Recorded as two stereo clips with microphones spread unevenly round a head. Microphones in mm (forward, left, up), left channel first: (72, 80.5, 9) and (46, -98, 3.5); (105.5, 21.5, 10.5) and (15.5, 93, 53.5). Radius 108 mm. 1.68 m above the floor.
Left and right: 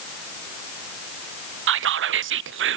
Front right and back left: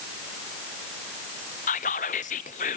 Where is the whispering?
85° right, 0.6 m.